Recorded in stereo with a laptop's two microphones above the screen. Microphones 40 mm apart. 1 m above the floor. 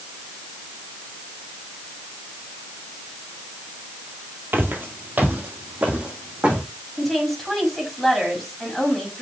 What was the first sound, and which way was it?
Footsteps, 55° right (ahead or behind).